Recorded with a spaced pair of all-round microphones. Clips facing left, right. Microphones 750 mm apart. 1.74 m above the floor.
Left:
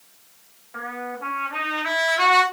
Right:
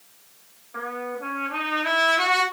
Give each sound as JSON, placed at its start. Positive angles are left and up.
{"t": 0.7, "sound": "a trumpet", "side_deg": 30, "distance_m": 2.5}